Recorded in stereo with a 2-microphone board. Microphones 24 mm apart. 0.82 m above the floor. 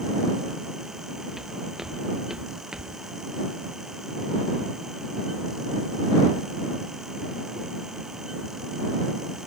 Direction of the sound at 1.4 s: 20° right (ahead or behind).